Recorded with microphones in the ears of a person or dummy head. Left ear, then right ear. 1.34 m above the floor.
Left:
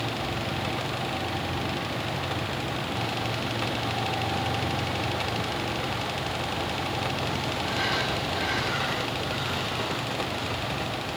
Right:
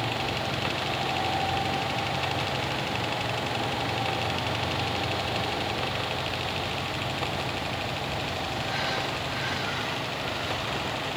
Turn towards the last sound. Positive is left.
No sound to turn to.